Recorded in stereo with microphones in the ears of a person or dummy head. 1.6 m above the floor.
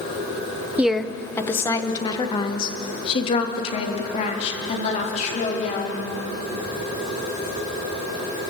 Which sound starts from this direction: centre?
A woman speaking, at 0.8 s.